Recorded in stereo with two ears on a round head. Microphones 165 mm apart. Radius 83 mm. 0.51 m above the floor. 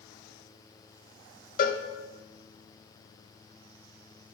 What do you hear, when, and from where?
1.6 s a cowbell: 45° left (ahead or behind), 0.5 m